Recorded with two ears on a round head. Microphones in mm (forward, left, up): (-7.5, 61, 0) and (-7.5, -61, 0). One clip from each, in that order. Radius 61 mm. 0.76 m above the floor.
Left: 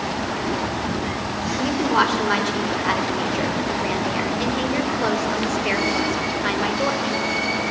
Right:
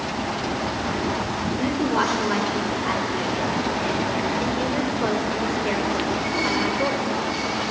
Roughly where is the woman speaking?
Left.